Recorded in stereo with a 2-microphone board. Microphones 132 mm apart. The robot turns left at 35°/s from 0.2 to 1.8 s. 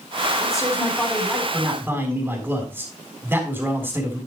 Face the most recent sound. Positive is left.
turn(degrees=-20)